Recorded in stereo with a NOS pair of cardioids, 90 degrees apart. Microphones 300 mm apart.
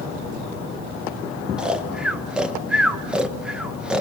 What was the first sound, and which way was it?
Snoring, 5° right.